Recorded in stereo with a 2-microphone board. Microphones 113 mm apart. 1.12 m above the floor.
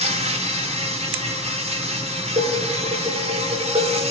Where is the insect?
70° right (ahead or behind), 4 m.